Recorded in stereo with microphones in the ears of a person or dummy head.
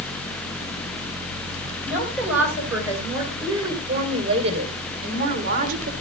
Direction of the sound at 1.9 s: 5° right (ahead or behind).